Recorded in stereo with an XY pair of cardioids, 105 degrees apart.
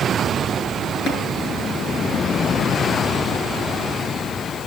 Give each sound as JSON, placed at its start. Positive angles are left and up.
{"t": 1.1, "sound": "tapping", "azimuth_deg": 60, "distance_m": 6.5}